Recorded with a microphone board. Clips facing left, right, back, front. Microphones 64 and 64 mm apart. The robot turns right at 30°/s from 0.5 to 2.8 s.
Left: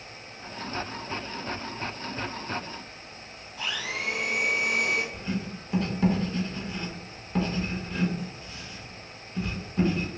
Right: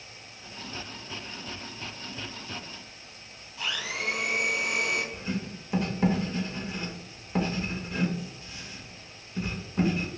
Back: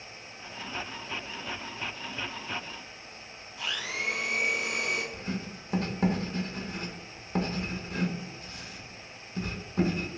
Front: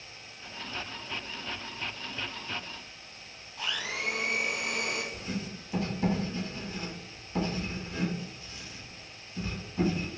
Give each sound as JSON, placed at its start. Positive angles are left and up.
{"t": 3.6, "sound": "a blender", "azimuth_deg": 45, "distance_m": 1.6}
{"t": 5.1, "sound": "writing", "azimuth_deg": -165, "distance_m": 0.7}